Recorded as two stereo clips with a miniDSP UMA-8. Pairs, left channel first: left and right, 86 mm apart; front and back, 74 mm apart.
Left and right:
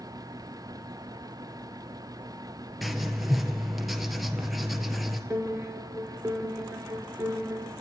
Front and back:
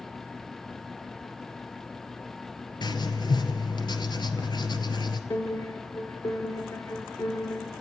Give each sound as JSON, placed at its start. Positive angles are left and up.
{"t": 2.8, "sound": "writing", "azimuth_deg": 0, "distance_m": 2.5}
{"t": 5.3, "sound": "a piano", "azimuth_deg": -25, "distance_m": 5.0}